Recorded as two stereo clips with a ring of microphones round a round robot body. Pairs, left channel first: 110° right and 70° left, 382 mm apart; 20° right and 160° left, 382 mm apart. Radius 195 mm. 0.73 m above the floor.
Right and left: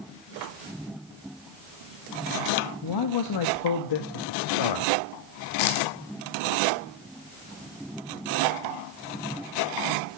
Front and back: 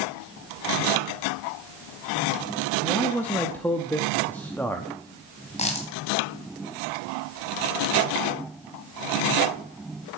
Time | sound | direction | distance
2.8 | a man speaking | 110° right | 1.0 m
5.6 | a dropped coin | 95° right | 2.0 m